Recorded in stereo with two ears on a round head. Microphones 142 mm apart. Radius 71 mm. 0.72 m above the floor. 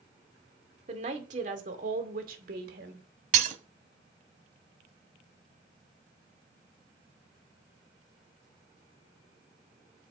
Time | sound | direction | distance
0.9 | a woman speaking | 40° right (ahead or behind) | 2.5 m
3.3 | breaking glass | 50° right (ahead or behind) | 1.2 m